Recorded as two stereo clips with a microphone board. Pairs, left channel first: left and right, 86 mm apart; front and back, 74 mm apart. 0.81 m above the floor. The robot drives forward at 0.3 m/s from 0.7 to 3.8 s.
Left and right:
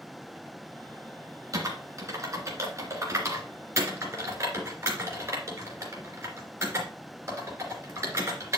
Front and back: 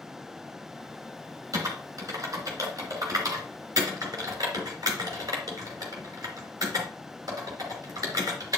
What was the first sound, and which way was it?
Typing on a keyboard, 140° right.